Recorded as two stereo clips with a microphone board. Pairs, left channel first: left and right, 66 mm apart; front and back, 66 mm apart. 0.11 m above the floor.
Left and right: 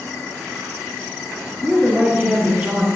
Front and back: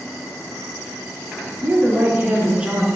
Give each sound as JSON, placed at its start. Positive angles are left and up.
{"t": 1.6, "sound": "a woman speaking", "azimuth_deg": 160, "distance_m": 2.0}